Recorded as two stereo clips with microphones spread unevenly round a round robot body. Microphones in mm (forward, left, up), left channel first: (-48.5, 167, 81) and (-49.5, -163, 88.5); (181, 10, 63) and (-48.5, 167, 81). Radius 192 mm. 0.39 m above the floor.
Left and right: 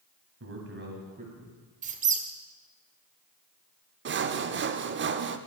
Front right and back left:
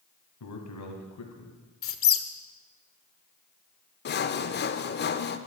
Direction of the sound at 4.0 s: 50° right.